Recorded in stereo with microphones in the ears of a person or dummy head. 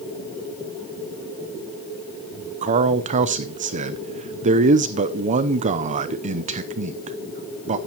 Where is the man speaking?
30° right (ahead or behind), 0.7 m.